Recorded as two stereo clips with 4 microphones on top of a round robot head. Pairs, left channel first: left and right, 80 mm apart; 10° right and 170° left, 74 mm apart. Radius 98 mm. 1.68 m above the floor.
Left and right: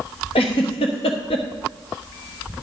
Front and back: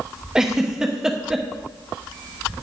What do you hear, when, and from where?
0.3 s a giggle: 90° left, 0.9 m